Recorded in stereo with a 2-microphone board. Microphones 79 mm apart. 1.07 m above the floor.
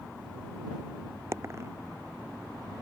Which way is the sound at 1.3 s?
35° right (ahead or behind).